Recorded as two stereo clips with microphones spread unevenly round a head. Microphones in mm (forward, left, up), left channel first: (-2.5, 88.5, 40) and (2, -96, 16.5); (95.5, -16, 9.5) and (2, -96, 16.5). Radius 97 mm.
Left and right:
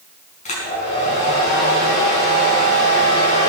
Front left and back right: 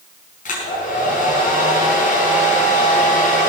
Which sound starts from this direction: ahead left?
A hair dryer, at 0.5 s.